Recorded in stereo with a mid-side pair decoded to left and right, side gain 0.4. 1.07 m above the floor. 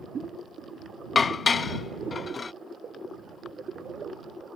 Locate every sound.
1.1 s dishes clattering: 40° left